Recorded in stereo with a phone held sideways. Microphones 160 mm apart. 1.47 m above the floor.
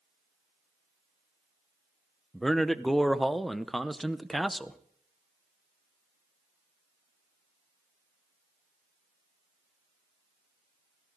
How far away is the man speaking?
About 0.7 m.